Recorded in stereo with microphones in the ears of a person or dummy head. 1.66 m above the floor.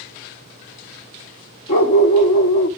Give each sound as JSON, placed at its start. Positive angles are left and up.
{"t": 1.7, "sound": "a dog barking", "side_deg": 30, "distance_m": 1.3}